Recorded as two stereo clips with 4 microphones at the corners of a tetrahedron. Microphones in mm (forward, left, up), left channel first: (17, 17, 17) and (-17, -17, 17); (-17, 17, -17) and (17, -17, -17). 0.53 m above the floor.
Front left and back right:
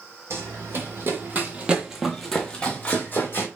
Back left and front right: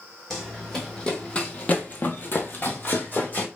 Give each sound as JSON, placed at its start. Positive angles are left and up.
{"t": 0.3, "sound": "running footsteps", "azimuth_deg": -145, "distance_m": 1.1}